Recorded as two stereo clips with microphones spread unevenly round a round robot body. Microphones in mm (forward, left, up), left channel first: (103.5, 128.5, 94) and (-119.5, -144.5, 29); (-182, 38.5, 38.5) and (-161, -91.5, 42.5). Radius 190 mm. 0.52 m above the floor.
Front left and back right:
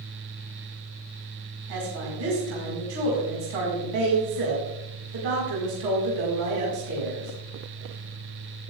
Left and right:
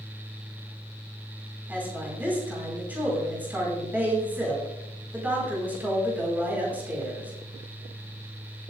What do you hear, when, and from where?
1.7 s a woman speaking: 160° right, 5 m